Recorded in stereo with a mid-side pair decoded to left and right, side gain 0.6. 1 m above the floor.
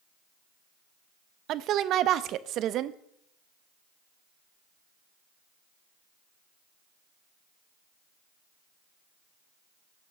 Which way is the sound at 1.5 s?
60° right.